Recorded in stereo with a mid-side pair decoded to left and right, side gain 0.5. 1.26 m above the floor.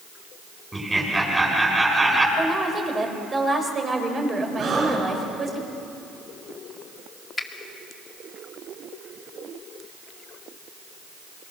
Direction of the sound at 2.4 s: 25° right.